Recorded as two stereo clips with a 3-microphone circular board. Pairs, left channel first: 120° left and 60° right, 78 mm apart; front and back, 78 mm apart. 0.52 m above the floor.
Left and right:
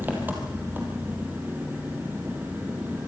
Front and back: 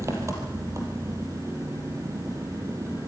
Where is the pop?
I don't hear a pop.